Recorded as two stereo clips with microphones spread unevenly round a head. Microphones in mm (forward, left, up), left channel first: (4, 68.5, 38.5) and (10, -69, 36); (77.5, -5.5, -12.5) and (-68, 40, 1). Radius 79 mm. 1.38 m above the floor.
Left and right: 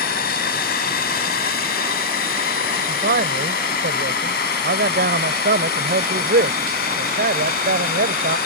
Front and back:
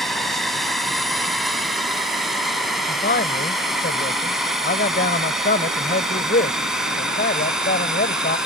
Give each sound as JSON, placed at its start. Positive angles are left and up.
{"t": 0.0, "sound": "a drone", "azimuth_deg": 70}
{"t": 2.9, "sound": "a man speaking", "azimuth_deg": -60}